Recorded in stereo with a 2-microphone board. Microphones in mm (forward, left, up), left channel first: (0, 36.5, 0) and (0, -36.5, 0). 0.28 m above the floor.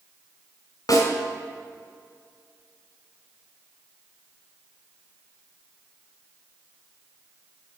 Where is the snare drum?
60° left (ahead or behind), 1.5 m.